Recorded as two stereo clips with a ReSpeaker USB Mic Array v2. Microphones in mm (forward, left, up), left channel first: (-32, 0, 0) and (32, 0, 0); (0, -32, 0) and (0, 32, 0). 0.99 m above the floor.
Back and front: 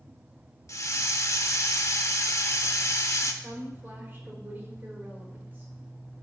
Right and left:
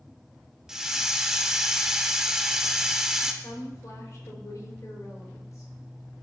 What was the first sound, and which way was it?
A hiss, 170° left.